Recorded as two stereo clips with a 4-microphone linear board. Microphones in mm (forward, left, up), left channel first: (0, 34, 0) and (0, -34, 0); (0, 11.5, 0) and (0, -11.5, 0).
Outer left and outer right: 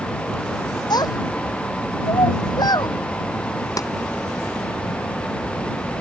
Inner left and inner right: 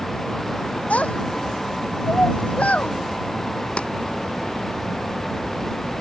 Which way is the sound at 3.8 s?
55° left (ahead or behind).